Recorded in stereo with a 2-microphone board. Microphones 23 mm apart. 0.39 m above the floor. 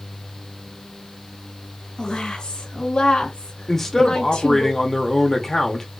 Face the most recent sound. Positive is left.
turn(degrees=20)  # may be behind; listen again after turning